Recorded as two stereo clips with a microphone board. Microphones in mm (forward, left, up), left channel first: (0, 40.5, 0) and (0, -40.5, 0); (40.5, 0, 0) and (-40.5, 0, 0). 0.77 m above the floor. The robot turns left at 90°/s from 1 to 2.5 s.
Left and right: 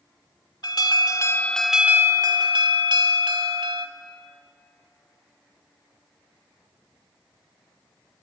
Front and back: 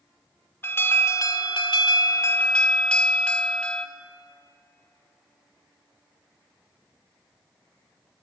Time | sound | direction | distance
0.6 | an alarm | 60° left | 1.2 m